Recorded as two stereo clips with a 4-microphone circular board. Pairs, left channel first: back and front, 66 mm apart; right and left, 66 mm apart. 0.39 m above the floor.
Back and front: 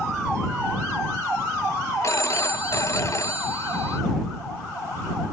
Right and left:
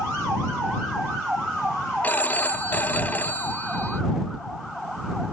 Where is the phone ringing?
150° right.